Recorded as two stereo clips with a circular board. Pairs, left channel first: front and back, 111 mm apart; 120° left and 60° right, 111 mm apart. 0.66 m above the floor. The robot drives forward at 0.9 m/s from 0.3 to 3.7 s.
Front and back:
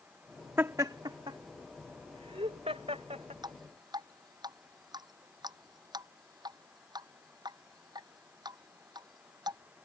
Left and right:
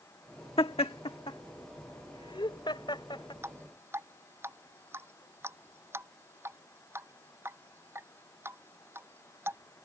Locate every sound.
0.6 s laughter: 115° left; by 3.3 s 165° left
3.4 s dripping: 125° right; by 9.6 s 130° right